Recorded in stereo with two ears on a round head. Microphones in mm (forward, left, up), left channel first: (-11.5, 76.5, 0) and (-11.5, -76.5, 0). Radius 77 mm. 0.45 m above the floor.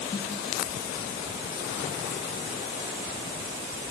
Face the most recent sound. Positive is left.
turn(degrees=-5)  # may be behind; listen again after turning